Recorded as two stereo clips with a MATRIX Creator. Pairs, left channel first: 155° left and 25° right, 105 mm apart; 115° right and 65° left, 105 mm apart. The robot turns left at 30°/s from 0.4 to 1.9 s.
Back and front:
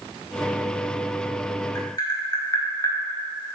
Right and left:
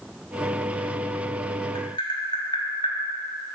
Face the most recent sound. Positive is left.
turn(degrees=-150)